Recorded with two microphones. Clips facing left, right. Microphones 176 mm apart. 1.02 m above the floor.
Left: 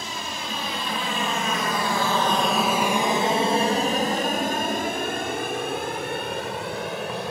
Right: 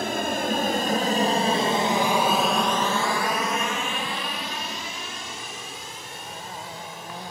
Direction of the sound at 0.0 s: 60° right (ahead or behind).